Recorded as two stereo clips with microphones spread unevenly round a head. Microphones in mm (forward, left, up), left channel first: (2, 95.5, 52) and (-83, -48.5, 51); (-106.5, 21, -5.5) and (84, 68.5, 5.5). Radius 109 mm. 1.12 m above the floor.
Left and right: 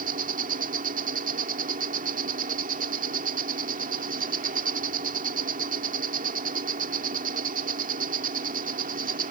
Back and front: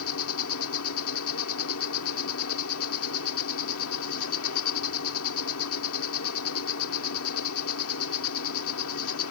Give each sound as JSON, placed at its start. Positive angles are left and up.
{"t": 0.0, "sound": "an insect", "azimuth_deg": -160}